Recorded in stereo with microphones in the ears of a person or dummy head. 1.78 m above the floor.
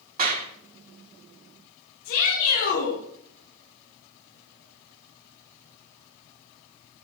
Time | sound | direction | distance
0.2 | a clap | 40° right (ahead or behind) | 2 m
2.0 | a shout | 50° left (ahead or behind) | 4.5 m